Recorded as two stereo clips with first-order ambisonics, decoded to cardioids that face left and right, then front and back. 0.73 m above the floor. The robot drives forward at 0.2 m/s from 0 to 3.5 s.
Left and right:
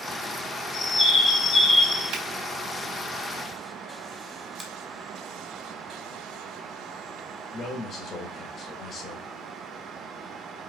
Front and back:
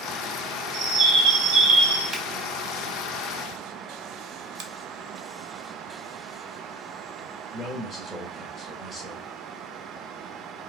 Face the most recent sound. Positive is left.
turn(degrees=120)